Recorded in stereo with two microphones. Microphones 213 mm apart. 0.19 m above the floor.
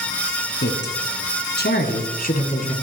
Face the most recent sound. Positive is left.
turn(degrees=35)  # may be behind; listen again after turning